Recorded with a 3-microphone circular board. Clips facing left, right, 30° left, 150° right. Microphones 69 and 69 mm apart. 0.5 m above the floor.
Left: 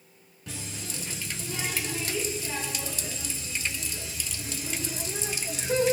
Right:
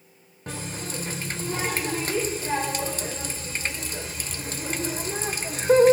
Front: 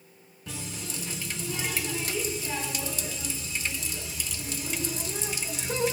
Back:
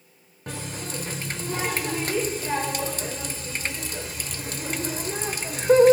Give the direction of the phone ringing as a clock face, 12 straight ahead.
I don't hear a phone ringing.